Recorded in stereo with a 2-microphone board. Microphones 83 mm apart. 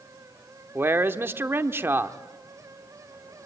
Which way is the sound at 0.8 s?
30° right (ahead or behind).